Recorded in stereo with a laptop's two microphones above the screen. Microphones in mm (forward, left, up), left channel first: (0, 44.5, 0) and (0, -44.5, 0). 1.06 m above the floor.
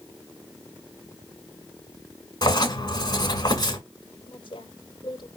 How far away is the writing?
About 2.5 m.